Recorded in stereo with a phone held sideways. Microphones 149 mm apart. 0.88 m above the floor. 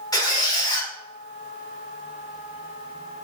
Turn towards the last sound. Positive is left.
turn(degrees=25)  # may be behind; listen again after turning